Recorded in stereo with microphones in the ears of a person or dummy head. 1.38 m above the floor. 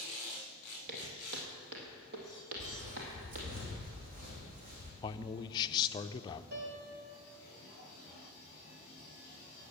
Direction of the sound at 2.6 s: 35° right (ahead or behind).